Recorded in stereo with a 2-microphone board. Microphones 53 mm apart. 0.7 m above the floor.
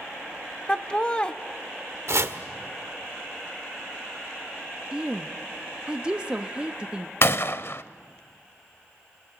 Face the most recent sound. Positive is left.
turn(degrees=55)  # may be behind; listen again after turning